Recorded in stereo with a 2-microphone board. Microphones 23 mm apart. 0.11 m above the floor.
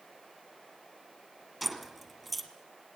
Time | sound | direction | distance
1.6 | keys jangling | centre (ahead or behind) | 1.7 m